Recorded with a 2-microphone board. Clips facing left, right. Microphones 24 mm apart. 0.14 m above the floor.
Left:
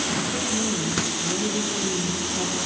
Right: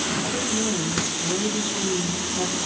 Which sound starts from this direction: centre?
A woman speaking, at 0.2 s.